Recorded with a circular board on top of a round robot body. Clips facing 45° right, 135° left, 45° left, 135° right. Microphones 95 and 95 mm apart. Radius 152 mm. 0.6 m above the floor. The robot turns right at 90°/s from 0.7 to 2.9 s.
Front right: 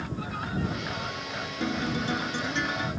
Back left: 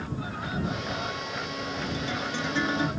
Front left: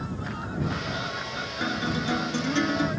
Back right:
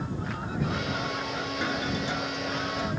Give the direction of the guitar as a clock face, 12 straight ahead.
1 o'clock.